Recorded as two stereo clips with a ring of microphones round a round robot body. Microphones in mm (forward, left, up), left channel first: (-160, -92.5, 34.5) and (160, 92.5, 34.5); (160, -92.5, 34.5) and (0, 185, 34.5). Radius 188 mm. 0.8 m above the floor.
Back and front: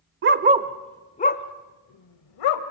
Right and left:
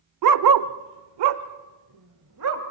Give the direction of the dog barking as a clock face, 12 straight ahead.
9 o'clock.